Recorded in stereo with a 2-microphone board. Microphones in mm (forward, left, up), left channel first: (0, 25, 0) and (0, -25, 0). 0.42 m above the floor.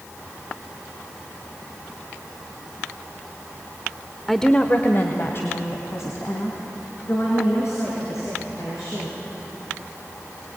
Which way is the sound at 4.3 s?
Centre (ahead or behind).